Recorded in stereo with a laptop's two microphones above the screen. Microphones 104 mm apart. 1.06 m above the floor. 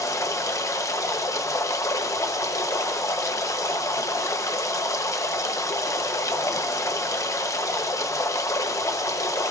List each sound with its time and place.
0.0 s running water: 30° left (ahead or behind), 0.7 m